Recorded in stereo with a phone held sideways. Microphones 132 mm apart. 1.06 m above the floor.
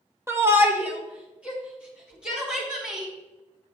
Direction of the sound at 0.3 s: 20° right (ahead or behind).